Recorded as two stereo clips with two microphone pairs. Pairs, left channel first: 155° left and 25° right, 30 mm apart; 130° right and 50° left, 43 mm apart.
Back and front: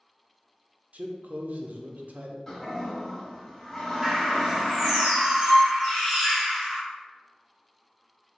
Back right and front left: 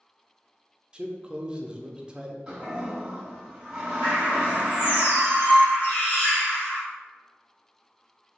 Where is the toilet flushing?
95° left, 1.2 m.